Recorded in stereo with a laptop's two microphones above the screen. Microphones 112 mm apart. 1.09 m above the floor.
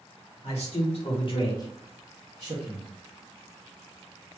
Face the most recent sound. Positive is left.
turn(degrees=-55)  # may be behind; listen again after turning